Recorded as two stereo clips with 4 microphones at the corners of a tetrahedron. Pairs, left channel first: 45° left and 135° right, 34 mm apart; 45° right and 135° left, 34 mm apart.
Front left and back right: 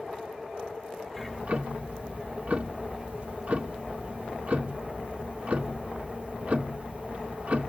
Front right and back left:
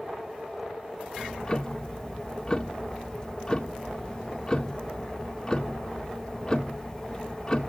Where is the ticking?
110° right, 1.3 m.